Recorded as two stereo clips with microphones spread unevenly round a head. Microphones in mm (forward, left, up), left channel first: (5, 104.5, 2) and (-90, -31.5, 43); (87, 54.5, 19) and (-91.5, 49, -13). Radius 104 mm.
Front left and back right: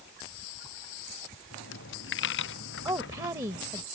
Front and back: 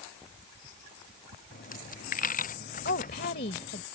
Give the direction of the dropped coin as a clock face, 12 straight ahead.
11 o'clock.